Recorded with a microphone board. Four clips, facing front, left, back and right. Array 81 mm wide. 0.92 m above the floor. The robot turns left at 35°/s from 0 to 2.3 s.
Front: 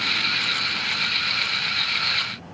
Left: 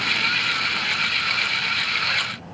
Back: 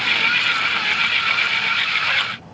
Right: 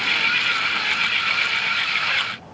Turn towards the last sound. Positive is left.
No sound to turn to.